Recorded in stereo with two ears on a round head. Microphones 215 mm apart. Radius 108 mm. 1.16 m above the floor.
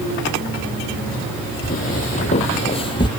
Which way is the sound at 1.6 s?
40° left (ahead or behind).